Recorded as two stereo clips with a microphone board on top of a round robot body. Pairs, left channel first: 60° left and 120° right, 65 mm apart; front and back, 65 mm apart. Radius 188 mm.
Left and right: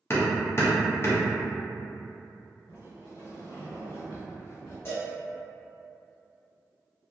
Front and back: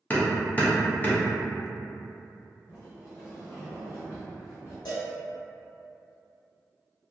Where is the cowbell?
5° left, 0.5 m.